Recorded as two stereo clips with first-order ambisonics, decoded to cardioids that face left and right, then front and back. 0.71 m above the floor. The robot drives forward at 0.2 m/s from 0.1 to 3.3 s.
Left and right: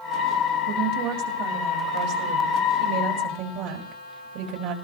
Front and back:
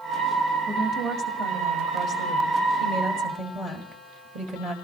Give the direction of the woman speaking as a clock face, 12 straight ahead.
4 o'clock.